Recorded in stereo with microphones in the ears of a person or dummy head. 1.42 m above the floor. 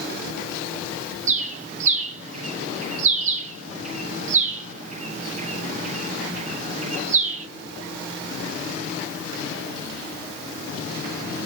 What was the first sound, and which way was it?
A bird, 50° right (ahead or behind).